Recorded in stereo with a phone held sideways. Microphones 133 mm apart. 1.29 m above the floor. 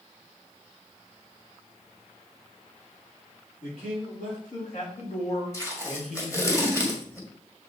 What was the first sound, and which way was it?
A man speaking, 80° left.